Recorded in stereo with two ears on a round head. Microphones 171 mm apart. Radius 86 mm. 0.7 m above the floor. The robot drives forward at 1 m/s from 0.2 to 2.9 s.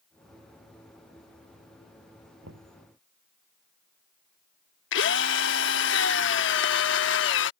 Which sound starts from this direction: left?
A drill, at 4.9 s.